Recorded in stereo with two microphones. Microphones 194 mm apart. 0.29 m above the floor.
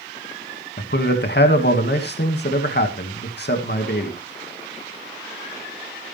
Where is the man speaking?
60° left (ahead or behind), 2 m.